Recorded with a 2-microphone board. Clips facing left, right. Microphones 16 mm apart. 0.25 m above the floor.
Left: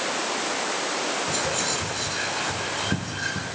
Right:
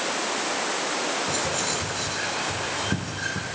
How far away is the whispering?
About 2.5 m.